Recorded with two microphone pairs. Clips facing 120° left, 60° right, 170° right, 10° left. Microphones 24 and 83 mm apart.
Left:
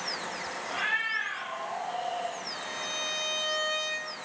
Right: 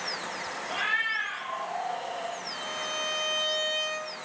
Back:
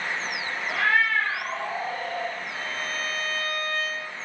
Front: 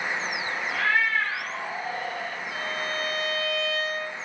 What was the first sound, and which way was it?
A cat meowing, 130° right.